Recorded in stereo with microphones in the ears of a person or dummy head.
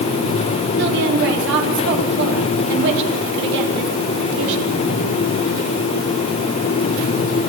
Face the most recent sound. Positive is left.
turn(degrees=-65)  # may be behind; listen again after turning